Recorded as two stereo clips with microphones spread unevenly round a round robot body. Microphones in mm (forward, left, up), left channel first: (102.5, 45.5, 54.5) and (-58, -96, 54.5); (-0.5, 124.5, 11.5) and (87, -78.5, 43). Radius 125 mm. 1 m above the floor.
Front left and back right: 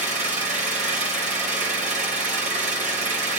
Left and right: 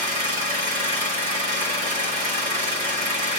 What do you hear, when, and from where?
0.0 s an engine running: 80° right, 1.2 m